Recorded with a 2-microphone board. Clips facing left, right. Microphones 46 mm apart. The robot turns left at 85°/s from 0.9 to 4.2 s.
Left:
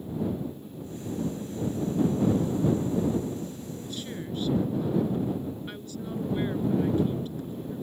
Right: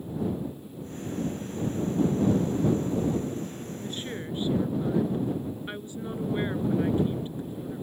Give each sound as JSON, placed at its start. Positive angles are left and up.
{"t": 3.8, "sound": "a woman speaking", "azimuth_deg": -110}